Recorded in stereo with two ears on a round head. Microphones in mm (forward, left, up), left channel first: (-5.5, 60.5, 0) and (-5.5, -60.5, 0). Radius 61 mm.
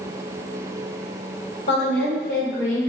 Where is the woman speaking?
80° left, 1.4 m; by 2.9 s 65° left (ahead or behind), 1.4 m.